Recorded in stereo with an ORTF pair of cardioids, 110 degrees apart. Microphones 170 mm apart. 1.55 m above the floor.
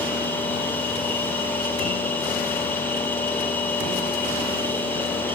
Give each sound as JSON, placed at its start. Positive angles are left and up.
{"t": 0.0, "sound": "a machine running", "azimuth_deg": 10, "distance_m": 7.0}